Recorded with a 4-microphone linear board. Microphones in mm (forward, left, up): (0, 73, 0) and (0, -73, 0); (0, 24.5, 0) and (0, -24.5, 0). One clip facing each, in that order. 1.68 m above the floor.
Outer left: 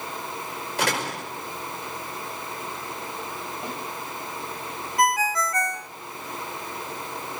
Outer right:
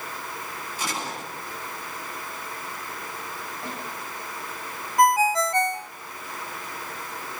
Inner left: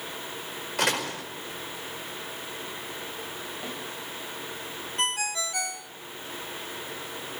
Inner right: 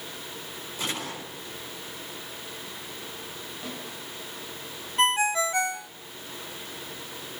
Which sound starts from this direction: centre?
A snare drum, at 3.6 s.